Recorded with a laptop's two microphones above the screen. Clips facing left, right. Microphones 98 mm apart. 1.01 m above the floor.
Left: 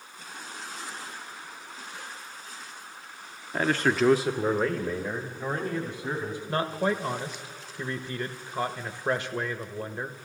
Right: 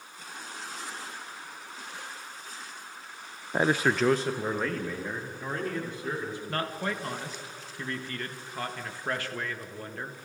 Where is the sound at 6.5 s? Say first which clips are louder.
Left 7 dB; 20° left (ahead or behind), 1.3 m.